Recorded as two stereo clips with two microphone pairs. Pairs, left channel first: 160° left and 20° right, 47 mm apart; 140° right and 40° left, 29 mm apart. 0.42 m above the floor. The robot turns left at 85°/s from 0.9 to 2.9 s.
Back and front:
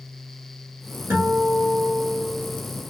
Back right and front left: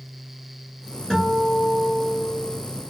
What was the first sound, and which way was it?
A guitar, 45° right.